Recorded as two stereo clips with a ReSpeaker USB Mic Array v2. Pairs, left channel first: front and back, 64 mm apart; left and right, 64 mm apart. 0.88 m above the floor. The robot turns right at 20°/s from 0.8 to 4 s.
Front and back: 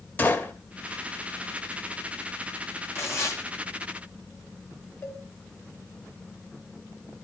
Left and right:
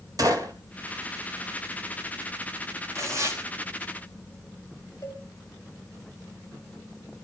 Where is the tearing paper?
50° right, 5 m; by 3.4 s 40° right, 5 m.